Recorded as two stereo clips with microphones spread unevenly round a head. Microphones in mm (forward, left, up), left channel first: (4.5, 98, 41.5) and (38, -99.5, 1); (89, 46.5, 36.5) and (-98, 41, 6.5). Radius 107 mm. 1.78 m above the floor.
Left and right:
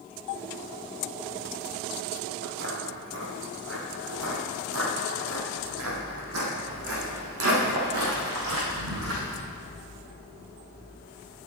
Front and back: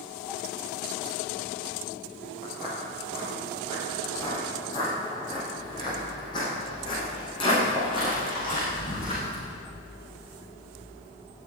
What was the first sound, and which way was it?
Footsteps, 70° right.